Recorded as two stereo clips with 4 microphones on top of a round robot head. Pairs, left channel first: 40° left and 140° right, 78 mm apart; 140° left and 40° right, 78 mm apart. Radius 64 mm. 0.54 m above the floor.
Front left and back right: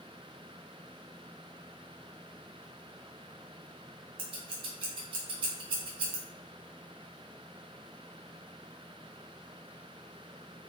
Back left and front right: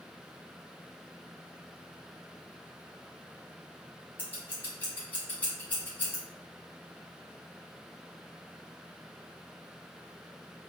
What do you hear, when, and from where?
4.2 s scissors: 150° right, 0.9 m